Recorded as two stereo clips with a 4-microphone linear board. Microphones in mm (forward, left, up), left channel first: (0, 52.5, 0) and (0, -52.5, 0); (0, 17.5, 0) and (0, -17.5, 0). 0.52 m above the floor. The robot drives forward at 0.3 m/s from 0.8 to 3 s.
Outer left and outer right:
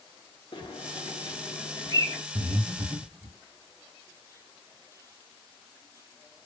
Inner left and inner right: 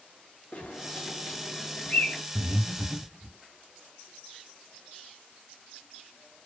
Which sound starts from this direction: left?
A bird, at 0.5 s.